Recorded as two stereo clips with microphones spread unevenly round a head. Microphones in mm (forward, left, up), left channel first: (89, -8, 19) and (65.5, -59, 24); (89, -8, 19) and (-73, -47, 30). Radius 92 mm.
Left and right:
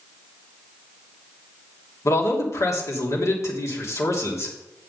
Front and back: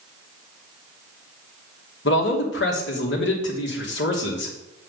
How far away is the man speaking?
About 2.5 m.